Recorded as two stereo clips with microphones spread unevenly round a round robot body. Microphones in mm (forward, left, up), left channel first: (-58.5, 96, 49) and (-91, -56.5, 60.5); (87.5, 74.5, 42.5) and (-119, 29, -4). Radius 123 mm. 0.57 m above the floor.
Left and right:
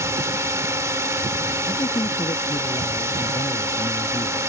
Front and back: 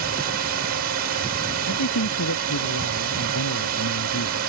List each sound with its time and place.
0.0 s a drone: 170° right
1.7 s a man speaking: 5° left